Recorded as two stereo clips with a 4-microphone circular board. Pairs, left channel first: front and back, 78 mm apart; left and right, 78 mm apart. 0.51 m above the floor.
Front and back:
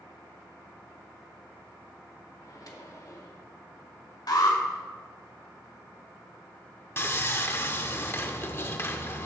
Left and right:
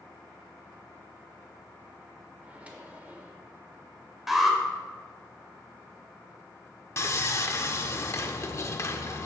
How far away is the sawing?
About 0.7 m.